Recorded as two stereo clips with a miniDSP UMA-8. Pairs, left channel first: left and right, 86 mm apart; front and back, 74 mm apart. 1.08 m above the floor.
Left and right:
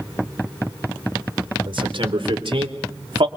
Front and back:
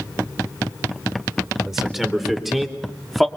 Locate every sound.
1.7 s a man speaking: 95° right, 4 m; by 3.3 s 90° right, 2.5 m